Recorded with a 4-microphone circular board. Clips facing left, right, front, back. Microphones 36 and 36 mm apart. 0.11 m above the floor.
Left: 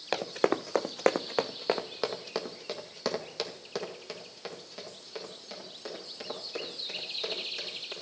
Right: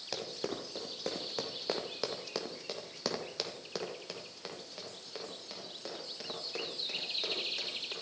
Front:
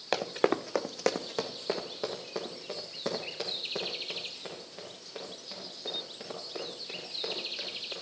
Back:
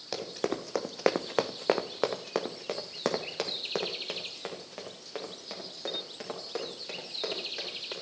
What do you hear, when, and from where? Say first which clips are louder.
0.1 s running footsteps: left 11 dB, front 5 dB; 45° left, 0.8 m; by 7.9 s straight behind, 5.5 m